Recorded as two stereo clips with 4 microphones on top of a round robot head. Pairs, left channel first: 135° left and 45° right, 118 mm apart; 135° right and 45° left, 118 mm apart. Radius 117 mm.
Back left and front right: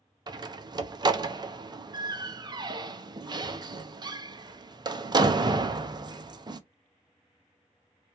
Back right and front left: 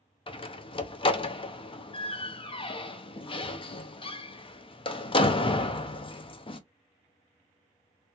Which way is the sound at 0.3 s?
95° right.